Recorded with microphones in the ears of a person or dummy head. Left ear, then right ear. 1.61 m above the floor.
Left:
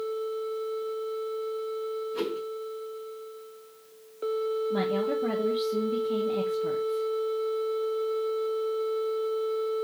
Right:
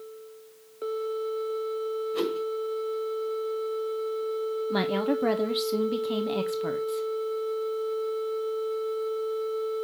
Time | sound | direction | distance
2.1 | a whoosh | 35° right (ahead or behind) | 1.9 m
4.7 | a woman speaking | 60° right (ahead or behind) | 0.6 m